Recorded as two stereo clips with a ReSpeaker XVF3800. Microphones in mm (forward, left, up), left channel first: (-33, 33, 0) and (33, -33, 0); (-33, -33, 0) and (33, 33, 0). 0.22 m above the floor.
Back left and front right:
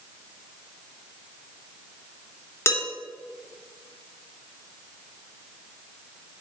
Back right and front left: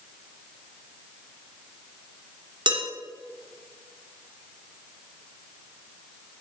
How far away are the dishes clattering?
About 2 m.